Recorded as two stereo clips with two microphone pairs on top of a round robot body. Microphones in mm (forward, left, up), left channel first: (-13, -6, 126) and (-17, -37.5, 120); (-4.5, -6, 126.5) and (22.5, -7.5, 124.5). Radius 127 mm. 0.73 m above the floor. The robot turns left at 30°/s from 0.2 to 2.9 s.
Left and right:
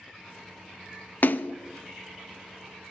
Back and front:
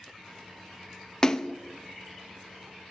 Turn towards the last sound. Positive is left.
turn(degrees=65)